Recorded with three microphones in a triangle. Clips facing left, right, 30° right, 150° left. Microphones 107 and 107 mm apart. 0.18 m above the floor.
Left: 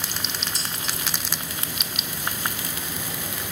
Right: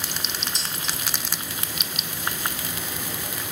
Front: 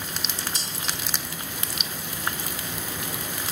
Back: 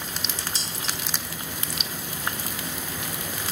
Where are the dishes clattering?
20° right, 4.5 m.